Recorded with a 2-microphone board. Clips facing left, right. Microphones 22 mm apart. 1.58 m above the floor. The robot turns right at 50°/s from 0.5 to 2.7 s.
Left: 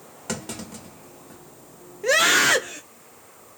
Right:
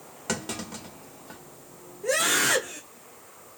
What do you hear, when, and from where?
0.3 s a clunk: 10° right (ahead or behind), 2.5 m; by 1.4 s 55° right (ahead or behind), 2.5 m
2.0 s a scream: 130° left, 0.9 m; by 2.8 s 165° left, 0.9 m